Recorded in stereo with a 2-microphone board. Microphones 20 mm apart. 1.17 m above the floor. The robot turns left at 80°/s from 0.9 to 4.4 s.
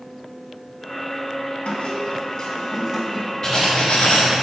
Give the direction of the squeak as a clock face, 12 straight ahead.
9 o'clock.